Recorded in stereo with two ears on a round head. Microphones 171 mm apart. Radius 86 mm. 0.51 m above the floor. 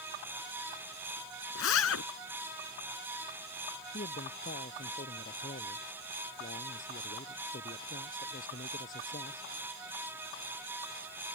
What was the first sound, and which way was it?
A zipper, 85° left.